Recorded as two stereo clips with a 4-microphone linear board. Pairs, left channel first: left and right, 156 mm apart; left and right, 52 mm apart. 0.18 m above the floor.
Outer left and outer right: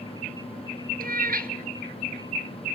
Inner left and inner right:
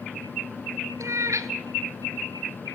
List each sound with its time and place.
1.0 s a cat meowing: 70° right (ahead or behind), 1.2 m